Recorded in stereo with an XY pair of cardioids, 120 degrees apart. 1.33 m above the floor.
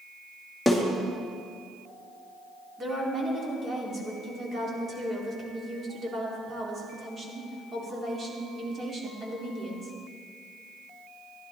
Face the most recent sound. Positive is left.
turn(degrees=-30)